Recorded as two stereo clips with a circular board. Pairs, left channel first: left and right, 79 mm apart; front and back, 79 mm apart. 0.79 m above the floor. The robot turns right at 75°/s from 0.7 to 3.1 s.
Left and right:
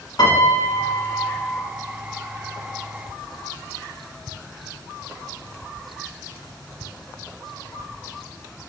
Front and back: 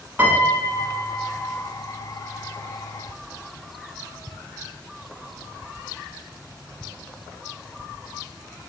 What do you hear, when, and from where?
0.2 s a piano: 115° left, 1.1 m; by 1.7 s 170° right, 1.1 m